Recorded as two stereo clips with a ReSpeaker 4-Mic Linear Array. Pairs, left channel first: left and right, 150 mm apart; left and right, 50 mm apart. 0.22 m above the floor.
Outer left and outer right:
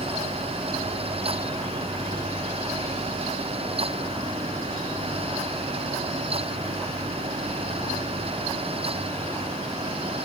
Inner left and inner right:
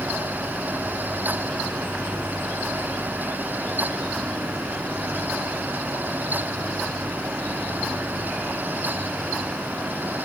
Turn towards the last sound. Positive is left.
No sound to turn to.